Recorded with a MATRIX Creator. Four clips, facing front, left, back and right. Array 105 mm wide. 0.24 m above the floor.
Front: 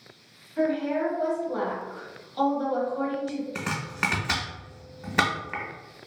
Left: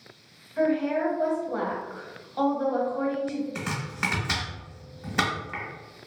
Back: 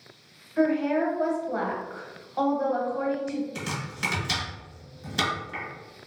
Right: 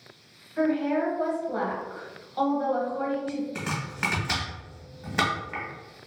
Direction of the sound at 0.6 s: 170° left.